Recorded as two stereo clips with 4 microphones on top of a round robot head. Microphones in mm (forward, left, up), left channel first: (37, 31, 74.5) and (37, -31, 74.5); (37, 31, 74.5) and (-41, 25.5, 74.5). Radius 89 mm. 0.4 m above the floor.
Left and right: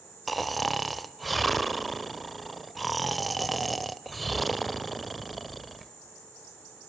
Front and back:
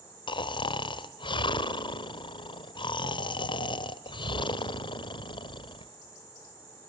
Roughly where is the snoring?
Ahead.